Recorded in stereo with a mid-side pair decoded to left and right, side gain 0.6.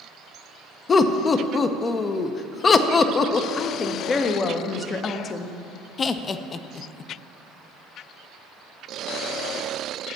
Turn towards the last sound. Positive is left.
turn(degrees=35)